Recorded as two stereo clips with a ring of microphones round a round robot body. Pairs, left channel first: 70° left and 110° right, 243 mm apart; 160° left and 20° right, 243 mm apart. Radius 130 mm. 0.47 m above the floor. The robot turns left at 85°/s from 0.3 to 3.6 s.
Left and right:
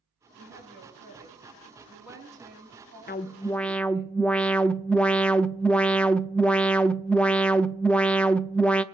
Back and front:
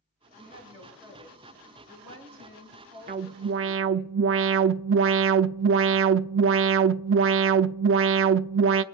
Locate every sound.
0.4 s a woman speaking: 120° left, 7 m; by 4.1 s 160° right, 7 m
3.1 s an alarm: 25° left, 0.5 m; by 8.8 s 15° right, 0.5 m